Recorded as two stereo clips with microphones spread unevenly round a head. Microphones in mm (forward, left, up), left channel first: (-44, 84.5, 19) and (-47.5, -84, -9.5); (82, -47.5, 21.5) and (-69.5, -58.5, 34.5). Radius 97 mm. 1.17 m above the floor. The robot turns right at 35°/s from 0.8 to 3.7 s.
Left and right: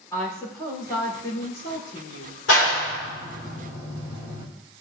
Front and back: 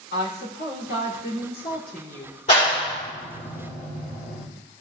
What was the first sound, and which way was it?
A woman speaking, 15° left.